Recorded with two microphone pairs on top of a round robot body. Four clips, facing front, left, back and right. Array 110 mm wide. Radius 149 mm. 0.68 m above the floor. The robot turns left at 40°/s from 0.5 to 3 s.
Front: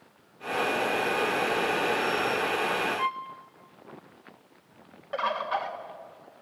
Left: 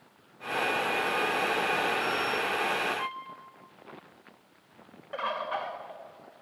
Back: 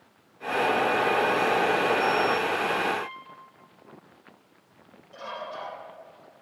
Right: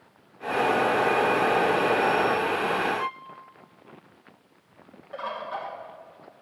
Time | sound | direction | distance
3.0 | a violin | 5° right | 1.3 m
5.1 | a bird | 15° left | 1.6 m